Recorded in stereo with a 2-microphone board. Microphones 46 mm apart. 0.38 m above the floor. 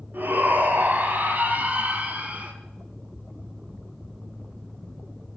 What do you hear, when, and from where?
0.1 s a shout: 45° right (ahead or behind), 2.5 m; by 2.5 s 30° right (ahead or behind), 3.5 m